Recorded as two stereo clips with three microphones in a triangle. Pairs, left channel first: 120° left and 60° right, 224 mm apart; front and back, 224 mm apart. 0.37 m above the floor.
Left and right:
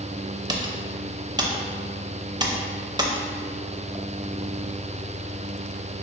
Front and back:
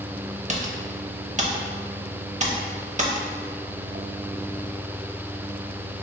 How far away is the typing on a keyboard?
About 0.5 m.